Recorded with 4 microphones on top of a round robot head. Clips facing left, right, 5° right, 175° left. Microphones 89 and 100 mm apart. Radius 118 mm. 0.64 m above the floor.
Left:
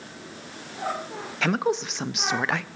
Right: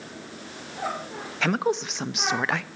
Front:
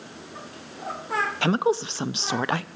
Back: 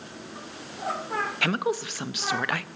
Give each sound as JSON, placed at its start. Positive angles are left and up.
{"t": 1.4, "sound": "a woman speaking", "azimuth_deg": 0, "distance_m": 0.5}